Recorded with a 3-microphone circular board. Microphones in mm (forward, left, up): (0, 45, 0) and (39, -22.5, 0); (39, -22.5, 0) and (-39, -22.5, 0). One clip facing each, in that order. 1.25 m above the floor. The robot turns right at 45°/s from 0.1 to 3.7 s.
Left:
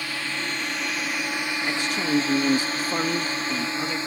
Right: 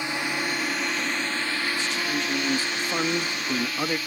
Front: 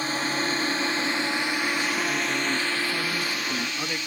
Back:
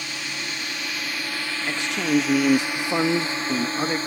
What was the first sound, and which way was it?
A drone, 5° right.